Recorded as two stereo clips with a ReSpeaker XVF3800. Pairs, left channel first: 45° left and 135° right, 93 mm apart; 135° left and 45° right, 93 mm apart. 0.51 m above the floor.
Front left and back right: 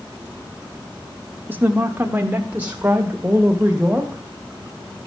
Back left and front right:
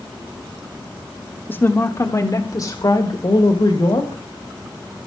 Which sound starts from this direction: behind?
A woman speaking, at 1.5 s.